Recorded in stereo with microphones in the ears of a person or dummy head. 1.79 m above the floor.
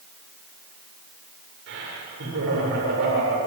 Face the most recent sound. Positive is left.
turn(degrees=-65)  # may be behind; listen again after turning